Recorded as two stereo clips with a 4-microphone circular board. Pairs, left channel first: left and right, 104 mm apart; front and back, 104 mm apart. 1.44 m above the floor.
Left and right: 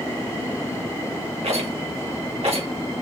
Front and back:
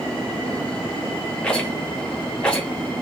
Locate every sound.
1.4 s a rattle: 80° right, 2 m